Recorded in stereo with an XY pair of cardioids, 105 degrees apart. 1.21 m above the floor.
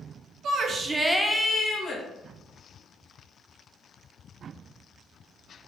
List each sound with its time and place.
0.4 s a shout: 65° right, 0.9 m; by 2.0 s 40° left, 1.2 m